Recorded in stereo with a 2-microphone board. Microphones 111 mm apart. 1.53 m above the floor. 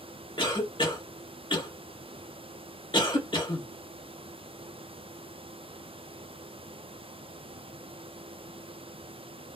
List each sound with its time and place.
0.4 s a cough: 45° left (ahead or behind), 1.7 m